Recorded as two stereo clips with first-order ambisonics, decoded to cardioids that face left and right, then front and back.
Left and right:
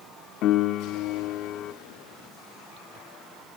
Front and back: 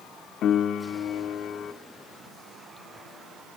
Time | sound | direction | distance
0.4 | a piano | 50° left | 0.9 m